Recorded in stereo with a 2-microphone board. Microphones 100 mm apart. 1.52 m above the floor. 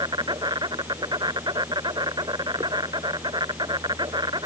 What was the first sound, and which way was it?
An insect, 45° right (ahead or behind).